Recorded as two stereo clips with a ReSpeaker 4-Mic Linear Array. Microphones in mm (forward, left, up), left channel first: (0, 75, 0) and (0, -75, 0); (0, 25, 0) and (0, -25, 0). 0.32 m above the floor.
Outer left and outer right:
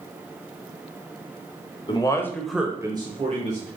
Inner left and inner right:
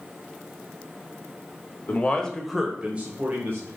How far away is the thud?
No thud in this recording.